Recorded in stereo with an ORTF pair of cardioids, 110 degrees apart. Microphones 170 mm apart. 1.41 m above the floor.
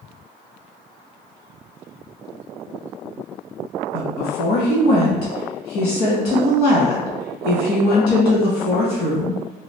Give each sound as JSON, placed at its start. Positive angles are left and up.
{"t": 3.9, "sound": "a woman speaking", "azimuth_deg": 70, "distance_m": 1.4}